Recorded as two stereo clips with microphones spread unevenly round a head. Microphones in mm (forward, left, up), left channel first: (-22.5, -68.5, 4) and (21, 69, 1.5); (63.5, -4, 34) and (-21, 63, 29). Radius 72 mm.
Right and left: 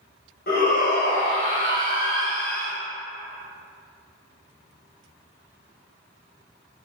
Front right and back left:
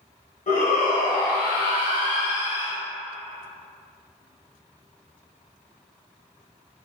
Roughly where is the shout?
Right.